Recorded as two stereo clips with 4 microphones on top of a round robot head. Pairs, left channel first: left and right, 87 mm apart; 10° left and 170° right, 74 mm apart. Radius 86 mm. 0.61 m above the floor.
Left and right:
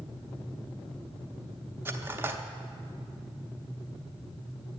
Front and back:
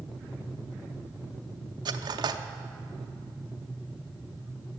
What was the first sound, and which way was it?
Cutlery clinking, 155° right.